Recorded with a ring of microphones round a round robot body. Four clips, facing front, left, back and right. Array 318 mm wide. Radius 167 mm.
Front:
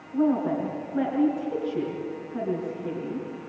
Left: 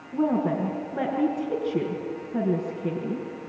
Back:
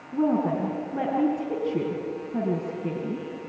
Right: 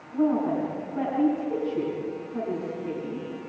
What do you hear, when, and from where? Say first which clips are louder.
0.1 s a woman speaking: even, even; 135° left, 4.5 m